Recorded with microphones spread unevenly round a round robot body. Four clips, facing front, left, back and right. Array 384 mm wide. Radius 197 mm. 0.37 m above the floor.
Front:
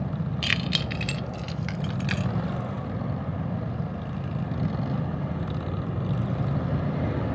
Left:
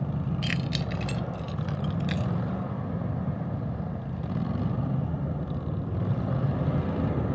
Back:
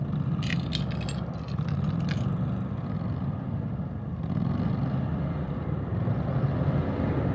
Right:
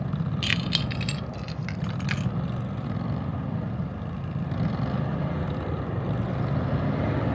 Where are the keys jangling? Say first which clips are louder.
Right 1 dB, front 1 dB; 20° right; by 2.3 s 55° right.